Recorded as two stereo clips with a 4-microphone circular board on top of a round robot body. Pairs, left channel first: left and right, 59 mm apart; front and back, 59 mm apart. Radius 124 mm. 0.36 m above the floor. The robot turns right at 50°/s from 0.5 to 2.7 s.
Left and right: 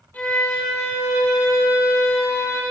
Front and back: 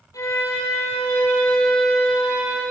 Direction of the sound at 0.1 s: 25° left.